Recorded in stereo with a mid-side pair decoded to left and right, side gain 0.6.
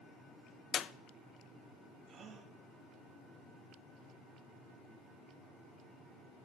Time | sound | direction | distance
0.7 | a clap | 45° left | 0.8 m
2.1 | a gasp | 65° right | 5.5 m